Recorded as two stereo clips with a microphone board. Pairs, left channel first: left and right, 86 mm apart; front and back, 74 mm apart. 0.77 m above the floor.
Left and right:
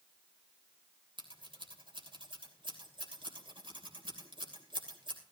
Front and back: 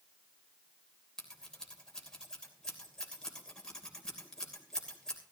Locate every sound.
1.2 s scissors: 80° right, 3 m